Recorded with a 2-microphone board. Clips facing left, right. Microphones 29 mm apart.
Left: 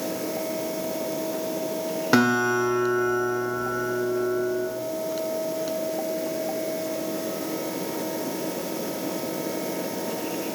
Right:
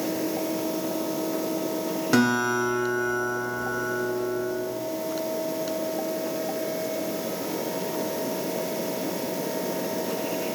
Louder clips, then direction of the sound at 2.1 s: Left 2 dB; 20° left (ahead or behind).